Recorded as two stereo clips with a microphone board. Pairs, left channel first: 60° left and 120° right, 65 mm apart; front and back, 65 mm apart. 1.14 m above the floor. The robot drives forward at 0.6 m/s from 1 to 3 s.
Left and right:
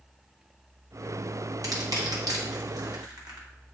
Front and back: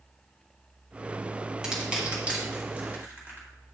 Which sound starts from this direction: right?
Crushing, at 1.6 s.